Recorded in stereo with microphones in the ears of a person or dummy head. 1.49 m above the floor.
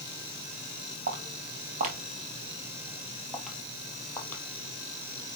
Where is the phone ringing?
No phone ringing in this recording.